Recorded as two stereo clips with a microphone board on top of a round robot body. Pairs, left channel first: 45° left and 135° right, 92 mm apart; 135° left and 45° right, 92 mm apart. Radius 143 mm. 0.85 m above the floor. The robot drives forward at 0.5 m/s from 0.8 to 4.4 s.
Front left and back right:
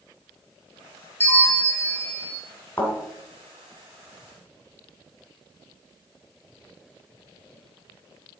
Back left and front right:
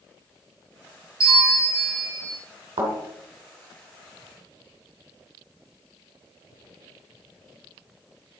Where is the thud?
25° right, 2 m.